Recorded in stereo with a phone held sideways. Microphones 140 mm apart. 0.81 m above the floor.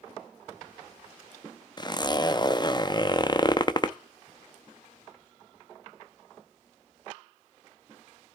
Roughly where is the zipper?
Left.